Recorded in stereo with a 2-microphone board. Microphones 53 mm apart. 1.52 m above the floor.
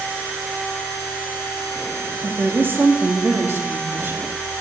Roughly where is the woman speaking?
Right.